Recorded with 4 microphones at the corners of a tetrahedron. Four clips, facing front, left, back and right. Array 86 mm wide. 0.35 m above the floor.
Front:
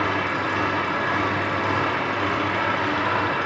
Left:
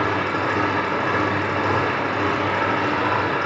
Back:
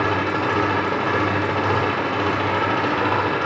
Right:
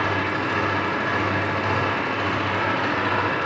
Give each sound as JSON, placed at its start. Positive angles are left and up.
{"t": 0.0, "sound": "an engine running", "azimuth_deg": 150, "distance_m": 9.5}